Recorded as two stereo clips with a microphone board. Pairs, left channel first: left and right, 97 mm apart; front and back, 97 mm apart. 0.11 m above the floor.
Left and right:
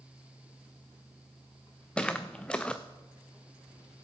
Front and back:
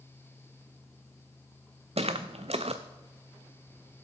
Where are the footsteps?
170° left, 0.7 m.